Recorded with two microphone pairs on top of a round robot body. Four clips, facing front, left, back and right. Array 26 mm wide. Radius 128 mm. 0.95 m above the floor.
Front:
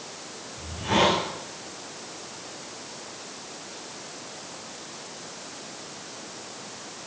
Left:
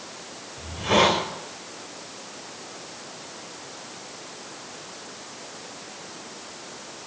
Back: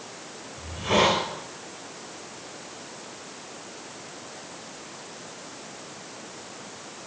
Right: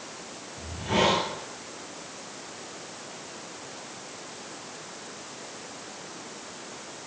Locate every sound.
0.6 s a hiss: 110° left, 5 m